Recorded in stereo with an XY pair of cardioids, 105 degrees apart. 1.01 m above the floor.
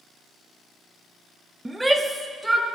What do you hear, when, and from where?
1.6 s a shout: 10° right, 1.0 m; by 2.6 s 5° right, 2 m